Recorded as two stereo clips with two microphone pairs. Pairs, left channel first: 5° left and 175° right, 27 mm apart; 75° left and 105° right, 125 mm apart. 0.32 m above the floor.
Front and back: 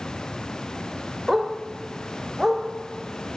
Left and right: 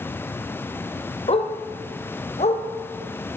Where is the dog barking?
110° left, 2.5 m; by 2.6 s 105° left, 4.5 m.